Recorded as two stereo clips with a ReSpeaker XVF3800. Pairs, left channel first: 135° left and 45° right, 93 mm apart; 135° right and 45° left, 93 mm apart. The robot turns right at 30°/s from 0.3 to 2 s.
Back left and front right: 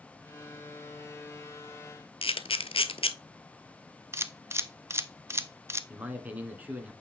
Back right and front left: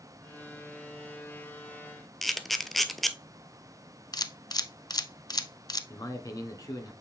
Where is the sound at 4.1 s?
100° right, 0.6 m.